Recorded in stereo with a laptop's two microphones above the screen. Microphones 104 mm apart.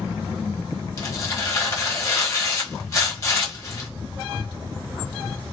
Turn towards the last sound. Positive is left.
turn(degrees=30)  # may be behind; listen again after turning